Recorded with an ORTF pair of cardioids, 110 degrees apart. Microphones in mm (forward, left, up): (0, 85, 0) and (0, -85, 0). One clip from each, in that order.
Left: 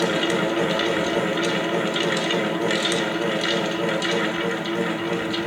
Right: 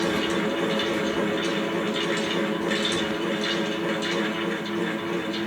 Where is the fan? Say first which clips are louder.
Left 3 dB; 40° left, 1.0 m.